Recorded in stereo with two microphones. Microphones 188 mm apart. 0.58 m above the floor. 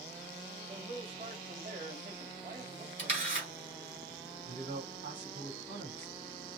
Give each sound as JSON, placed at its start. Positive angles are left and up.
{"t": 0.7, "sound": "a man speaking", "side_deg": -50, "distance_m": 2.5}
{"t": 3.0, "sound": "a camera shutter", "side_deg": -50, "distance_m": 3.5}
{"t": 4.5, "sound": "a man speaking", "side_deg": -65, "distance_m": 4.0}